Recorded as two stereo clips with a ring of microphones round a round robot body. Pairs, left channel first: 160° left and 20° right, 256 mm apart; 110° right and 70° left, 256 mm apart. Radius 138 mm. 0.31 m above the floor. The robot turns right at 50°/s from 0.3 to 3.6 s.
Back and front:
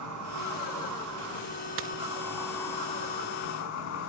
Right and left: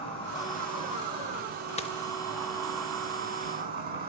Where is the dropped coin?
50° right, 0.7 m; by 1.9 s 40° right, 0.7 m.